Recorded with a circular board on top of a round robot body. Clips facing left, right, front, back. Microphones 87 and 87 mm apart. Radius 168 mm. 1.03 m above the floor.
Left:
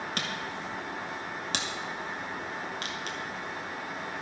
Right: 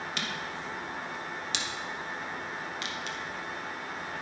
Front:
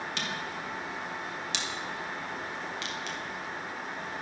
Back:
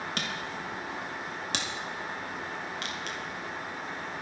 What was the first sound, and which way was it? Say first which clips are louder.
A camera shutter: left 1 dB, even; 135° left.